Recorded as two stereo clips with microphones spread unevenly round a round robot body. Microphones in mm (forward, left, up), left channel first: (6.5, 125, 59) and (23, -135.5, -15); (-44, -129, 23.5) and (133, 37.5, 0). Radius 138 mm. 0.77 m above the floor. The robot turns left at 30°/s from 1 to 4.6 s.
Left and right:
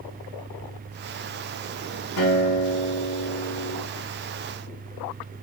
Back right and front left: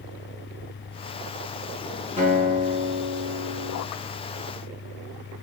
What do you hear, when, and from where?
2.2 s a guitar: 115° left, 5 m; by 3.8 s 65° left, 5 m